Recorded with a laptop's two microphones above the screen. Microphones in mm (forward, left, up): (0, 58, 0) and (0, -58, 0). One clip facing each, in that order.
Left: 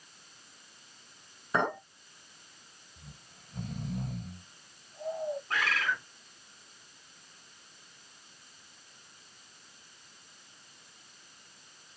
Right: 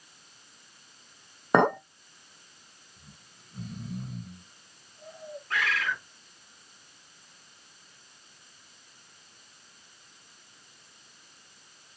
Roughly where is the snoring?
Left.